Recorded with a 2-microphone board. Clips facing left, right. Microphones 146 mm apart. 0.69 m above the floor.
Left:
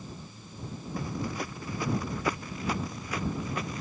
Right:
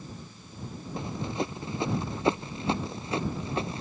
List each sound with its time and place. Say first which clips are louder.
1.0 s running footsteps: right 2 dB; 25° right (ahead or behind)